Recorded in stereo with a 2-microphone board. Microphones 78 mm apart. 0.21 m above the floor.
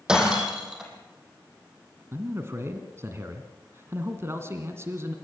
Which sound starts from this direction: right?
A man speaking, at 2.1 s.